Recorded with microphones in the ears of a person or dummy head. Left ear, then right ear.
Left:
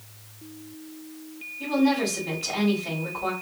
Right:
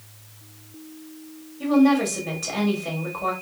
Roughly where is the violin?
No violin in this recording.